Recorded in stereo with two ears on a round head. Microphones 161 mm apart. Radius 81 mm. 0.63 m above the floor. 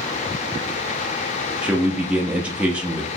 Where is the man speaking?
5° right (ahead or behind), 0.7 m.